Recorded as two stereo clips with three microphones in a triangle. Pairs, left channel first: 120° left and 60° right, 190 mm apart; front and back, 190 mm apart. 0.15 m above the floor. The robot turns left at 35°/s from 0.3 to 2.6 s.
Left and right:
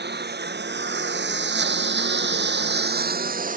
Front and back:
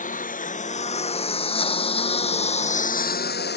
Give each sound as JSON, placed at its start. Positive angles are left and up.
{"t": 0.0, "sound": "a lawn mower", "azimuth_deg": -45}